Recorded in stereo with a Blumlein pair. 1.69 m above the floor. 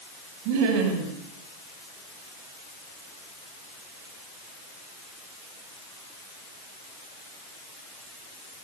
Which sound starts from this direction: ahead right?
Laughter, at 0.5 s.